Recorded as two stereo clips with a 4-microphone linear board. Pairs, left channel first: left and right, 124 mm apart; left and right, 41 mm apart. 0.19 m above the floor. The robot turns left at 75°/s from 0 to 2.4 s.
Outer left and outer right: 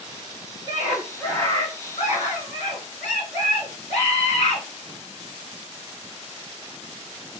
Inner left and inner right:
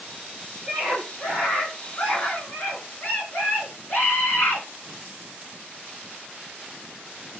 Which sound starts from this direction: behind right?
A scream, at 0.7 s.